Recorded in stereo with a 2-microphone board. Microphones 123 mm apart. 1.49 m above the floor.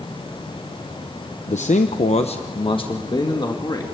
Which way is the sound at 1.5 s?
75° left (ahead or behind).